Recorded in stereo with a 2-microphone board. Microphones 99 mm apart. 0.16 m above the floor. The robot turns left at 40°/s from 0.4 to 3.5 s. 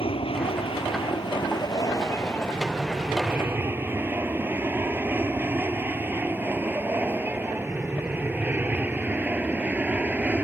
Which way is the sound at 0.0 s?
70° left (ahead or behind).